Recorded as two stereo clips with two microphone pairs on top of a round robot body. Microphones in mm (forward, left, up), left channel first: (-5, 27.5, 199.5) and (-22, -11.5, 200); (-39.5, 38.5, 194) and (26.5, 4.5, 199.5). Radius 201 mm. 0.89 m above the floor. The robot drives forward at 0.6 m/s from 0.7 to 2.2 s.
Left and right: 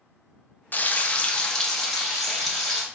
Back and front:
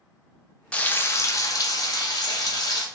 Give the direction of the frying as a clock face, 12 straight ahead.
9 o'clock.